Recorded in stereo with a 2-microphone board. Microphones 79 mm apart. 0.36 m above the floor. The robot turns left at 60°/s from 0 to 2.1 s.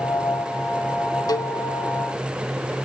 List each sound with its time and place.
1.3 s a cowbell: 60° left (ahead or behind), 0.7 m; by 1.6 s 75° left (ahead or behind), 0.7 m